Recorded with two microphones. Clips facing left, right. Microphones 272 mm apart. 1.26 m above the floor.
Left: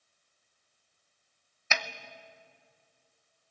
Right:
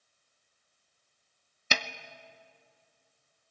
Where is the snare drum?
40° right (ahead or behind), 0.7 m.